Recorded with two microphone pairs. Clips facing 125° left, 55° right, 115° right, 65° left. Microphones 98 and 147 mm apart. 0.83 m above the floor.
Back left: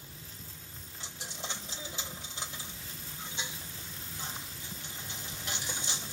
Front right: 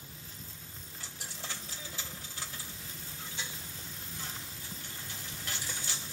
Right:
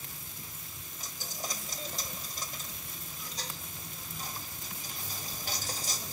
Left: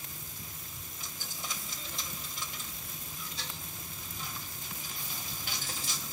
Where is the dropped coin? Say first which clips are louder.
Back left 3 dB, right 4 dB; 165° right, 1.0 m.